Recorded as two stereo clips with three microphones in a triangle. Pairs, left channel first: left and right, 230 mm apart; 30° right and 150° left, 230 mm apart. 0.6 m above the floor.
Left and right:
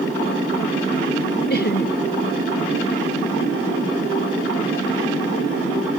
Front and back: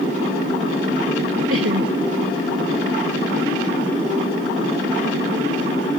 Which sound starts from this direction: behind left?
Laughter, at 1.5 s.